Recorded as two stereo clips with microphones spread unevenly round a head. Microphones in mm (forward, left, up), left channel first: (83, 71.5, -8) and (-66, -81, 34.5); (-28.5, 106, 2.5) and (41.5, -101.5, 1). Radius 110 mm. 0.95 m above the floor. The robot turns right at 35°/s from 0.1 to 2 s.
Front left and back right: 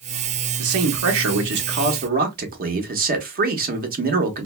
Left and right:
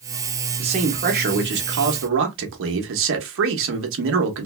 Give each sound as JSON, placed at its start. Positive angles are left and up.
{"t": 0.6, "sound": "a man speaking", "azimuth_deg": -135, "distance_m": 1.0}